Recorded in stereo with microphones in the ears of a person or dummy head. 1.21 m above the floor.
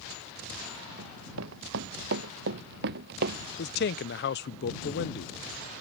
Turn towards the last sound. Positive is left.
turn(degrees=50)  # may be behind; listen again after turning